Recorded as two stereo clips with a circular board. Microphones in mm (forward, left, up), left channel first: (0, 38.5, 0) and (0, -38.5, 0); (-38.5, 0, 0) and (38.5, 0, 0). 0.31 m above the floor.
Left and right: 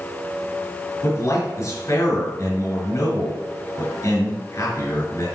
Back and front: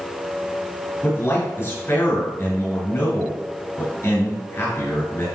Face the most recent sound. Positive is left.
turn(degrees=130)